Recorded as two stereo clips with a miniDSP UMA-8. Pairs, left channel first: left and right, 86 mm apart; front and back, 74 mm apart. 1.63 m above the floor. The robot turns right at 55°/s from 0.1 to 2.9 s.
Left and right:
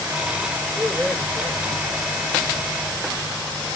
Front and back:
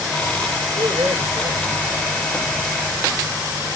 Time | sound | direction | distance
0.8 | a man speaking | 170° left | 6 m